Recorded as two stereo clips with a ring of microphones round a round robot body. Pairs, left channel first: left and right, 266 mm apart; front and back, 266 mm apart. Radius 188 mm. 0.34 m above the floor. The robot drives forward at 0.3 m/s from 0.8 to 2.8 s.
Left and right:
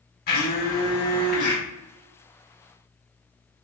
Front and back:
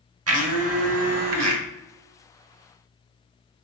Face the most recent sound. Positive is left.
turn(degrees=165)